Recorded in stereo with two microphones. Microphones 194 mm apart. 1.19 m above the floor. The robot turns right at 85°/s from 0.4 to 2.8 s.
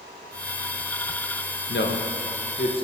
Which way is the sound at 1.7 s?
60° left (ahead or behind).